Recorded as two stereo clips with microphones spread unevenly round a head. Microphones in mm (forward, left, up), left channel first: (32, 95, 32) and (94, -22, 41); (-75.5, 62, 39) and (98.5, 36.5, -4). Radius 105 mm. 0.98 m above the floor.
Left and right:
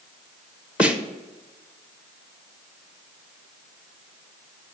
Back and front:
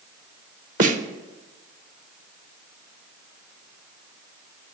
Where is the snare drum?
20° left, 0.7 m.